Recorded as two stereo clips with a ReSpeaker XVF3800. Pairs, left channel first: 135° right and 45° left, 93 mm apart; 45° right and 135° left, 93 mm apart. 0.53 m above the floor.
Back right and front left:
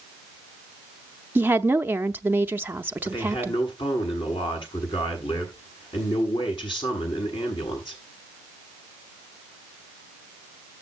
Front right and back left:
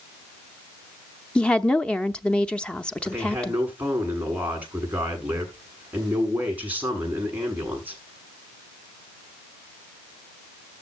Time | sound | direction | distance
1.4 | a woman speaking | 15° left | 0.6 m
3.0 | a man speaking | 155° right | 7 m